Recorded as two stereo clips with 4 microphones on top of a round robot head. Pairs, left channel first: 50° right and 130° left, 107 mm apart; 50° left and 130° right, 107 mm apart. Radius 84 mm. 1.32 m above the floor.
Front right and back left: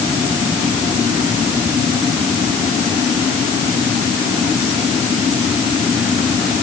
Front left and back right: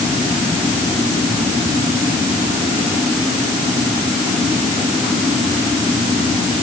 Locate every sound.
Only background noise.